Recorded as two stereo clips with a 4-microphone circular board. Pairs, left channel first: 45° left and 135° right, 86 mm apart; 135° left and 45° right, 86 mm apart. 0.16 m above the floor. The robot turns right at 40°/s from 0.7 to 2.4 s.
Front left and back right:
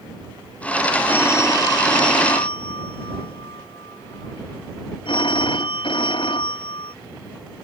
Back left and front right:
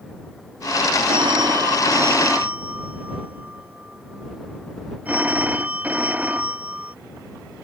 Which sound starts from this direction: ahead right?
A phone ringing, at 1.1 s.